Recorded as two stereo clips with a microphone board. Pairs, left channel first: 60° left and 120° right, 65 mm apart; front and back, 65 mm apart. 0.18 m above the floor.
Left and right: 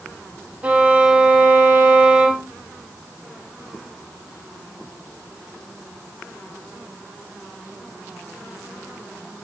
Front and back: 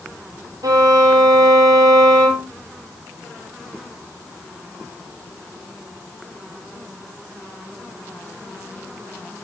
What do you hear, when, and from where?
0.6 s a violin: 170° left, 3.5 m